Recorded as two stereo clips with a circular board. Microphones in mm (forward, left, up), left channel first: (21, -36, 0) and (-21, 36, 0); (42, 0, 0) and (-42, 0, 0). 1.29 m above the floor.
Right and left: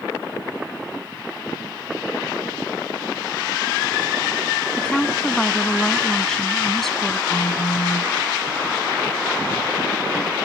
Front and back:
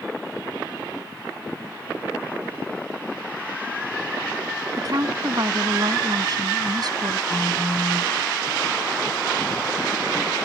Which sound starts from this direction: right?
A phone buzzing, at 7.3 s.